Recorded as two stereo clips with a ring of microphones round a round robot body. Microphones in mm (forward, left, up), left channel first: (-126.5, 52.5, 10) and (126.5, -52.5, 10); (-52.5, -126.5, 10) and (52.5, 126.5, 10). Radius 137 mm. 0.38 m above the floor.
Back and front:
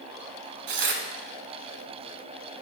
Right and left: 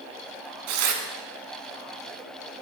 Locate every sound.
0.7 s tearing paper: 30° left, 0.9 m